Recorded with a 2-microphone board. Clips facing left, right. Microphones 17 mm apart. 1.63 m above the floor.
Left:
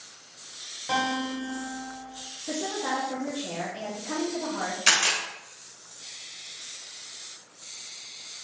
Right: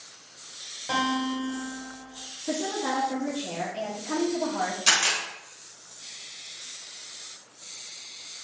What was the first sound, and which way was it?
A guitar, centre (ahead or behind).